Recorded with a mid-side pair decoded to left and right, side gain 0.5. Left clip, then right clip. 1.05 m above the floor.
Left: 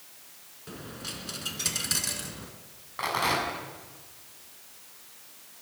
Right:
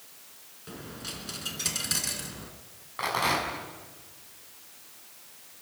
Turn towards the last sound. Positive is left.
turn(degrees=0)